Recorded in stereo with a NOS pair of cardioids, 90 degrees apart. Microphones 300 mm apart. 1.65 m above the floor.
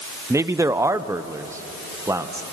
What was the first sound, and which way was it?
A man speaking, 10° right.